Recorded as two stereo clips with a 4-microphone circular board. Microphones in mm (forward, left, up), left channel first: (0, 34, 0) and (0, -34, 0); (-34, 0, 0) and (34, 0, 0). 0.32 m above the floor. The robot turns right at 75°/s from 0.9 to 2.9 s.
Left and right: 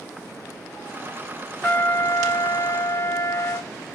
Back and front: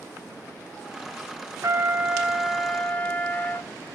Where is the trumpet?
25° left, 0.5 m; by 3.7 s 120° left, 0.5 m.